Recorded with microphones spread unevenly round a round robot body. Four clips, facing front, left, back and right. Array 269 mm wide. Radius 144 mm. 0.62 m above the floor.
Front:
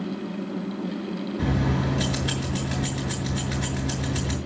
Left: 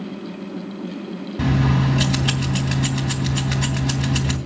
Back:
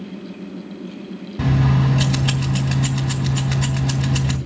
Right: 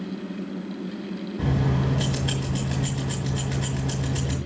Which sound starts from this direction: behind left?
Keys jangling, at 1.4 s.